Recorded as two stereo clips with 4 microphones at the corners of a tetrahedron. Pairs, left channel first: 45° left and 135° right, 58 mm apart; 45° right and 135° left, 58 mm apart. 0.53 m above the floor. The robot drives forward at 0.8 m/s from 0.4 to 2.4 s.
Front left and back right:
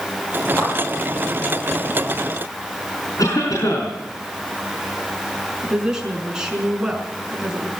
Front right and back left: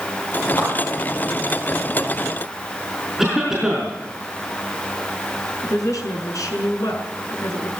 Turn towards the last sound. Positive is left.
turn(degrees=-55)